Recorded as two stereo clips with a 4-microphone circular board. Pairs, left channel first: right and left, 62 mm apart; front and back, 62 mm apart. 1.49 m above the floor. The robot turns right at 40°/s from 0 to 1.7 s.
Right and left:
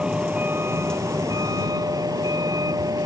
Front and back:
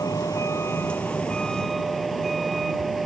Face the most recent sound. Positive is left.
turn(degrees=90)